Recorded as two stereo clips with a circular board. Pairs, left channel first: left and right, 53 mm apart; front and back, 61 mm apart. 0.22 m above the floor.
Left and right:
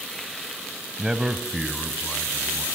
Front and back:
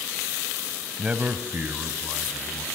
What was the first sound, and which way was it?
A man speaking, 135° right.